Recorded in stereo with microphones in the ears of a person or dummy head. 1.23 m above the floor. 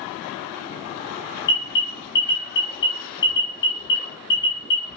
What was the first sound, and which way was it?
An alarm, 20° left (ahead or behind).